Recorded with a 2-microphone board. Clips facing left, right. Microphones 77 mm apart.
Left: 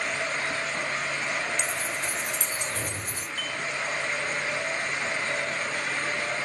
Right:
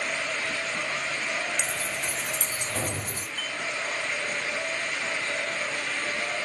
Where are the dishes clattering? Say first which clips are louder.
Left 1 dB; 5° right (ahead or behind), 3.5 m.